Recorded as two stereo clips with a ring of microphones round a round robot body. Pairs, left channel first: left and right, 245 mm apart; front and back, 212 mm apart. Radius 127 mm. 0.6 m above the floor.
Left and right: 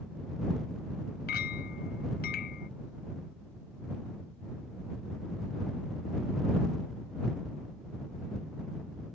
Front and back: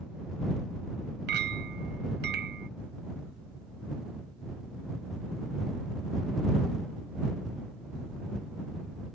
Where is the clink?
145° left.